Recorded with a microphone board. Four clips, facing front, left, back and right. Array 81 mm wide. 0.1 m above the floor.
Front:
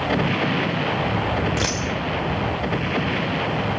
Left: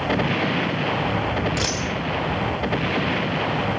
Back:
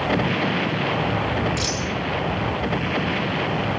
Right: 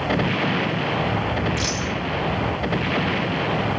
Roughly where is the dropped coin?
Ahead.